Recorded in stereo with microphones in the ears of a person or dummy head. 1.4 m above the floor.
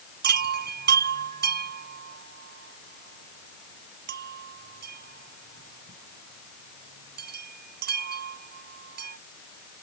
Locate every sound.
0.2 s a chime: 50° right (ahead or behind)